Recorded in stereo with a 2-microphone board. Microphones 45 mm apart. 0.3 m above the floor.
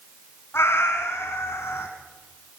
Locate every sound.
0.5 s a cat meowing: 70° left (ahead or behind), 1.6 m